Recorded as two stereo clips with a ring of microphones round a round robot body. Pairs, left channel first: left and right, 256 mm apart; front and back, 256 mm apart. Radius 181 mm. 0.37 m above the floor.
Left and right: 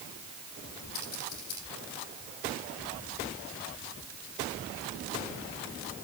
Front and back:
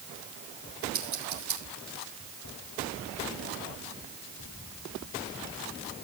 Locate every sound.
0.9 s scissors: 145° left, 9 m